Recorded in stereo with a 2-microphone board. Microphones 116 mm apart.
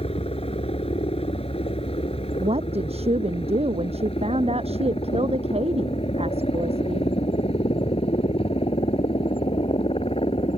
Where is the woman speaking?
60° right (ahead or behind).